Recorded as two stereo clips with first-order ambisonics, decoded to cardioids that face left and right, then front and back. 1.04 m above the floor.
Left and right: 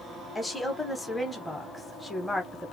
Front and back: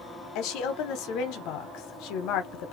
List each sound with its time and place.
0.3 s a woman speaking: 5° left, 0.6 m